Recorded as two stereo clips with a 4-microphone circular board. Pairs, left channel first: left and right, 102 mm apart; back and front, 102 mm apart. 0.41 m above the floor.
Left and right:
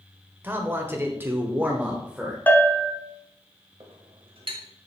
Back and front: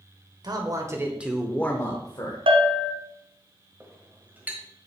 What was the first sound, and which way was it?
A man speaking, 25° right.